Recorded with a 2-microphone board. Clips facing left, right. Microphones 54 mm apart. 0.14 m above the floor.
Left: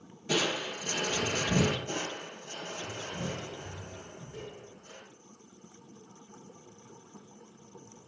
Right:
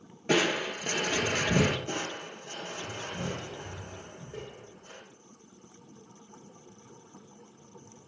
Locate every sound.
0.3 s crushing: 50° right (ahead or behind), 1.5 m
1.9 s crushing: 50° right (ahead or behind), 5.5 m